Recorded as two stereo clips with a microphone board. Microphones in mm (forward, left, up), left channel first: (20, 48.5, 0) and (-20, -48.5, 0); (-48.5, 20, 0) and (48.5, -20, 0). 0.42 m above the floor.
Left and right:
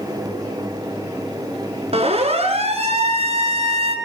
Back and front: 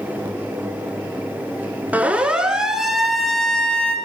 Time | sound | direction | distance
1.9 | a siren | 95° right | 4.5 m